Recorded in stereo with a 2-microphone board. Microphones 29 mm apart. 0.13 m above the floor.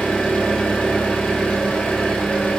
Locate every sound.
0.0 s an engine running: 45° left (ahead or behind), 1.3 m